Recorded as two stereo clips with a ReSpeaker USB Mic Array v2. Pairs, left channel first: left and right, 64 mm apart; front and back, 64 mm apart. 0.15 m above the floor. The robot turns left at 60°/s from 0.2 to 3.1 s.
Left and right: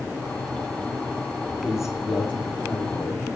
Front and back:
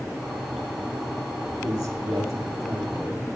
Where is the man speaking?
165° right, 5 m; by 3.3 s 105° left, 5 m.